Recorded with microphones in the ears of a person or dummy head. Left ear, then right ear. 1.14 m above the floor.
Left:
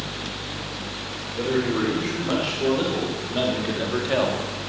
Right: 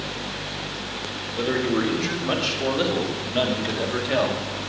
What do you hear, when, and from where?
1.4 s a man speaking: 30° right (ahead or behind), 3.5 m; by 4.5 s 5° left (ahead or behind), 1.9 m